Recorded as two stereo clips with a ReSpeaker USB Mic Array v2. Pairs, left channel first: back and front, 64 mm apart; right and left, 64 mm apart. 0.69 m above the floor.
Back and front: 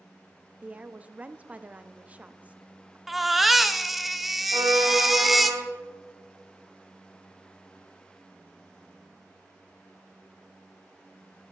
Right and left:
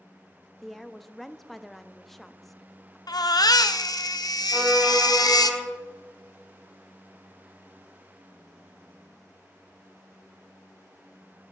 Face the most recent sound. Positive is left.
turn(degrees=5)